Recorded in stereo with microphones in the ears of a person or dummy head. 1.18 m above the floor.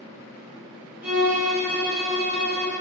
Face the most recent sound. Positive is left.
turn(degrees=-15)  # may be behind; listen again after turning